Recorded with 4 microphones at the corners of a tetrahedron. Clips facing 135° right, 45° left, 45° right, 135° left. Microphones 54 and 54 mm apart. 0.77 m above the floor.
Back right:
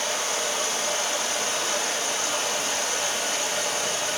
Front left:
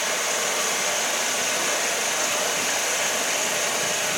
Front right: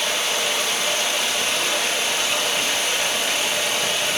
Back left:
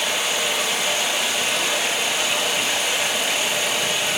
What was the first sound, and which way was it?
Running water, 50° left.